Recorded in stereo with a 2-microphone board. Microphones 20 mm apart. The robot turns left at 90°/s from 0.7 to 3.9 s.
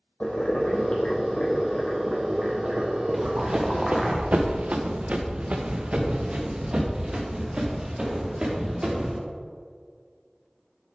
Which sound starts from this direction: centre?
Running footsteps, at 3.1 s.